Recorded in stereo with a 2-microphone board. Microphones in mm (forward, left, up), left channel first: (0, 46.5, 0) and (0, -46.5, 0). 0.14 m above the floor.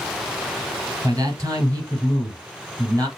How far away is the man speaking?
About 3 m.